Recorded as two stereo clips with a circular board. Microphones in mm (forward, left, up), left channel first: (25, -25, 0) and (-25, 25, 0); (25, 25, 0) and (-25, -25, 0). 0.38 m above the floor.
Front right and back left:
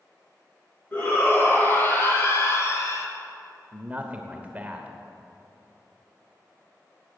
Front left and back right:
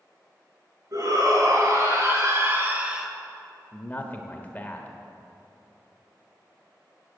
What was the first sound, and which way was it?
A shout, 105° right.